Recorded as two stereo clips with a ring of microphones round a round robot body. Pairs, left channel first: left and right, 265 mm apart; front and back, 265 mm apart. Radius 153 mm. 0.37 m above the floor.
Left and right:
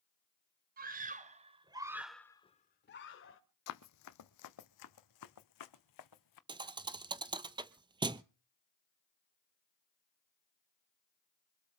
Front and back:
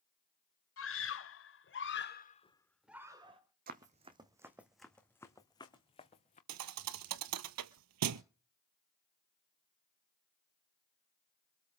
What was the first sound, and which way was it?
A scream, 35° right.